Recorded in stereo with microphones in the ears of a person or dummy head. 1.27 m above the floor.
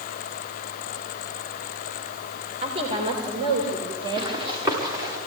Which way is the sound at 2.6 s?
35° right (ahead or behind).